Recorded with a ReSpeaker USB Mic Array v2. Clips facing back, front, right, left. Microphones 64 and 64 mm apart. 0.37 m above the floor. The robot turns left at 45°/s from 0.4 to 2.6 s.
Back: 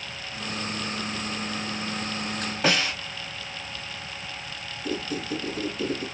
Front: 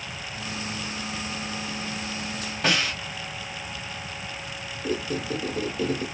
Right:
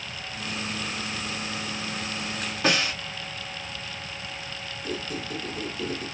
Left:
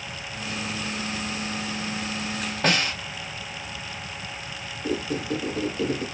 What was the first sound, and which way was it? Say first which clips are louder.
A snare drum: back 1 dB, left 1 dB; 110° left.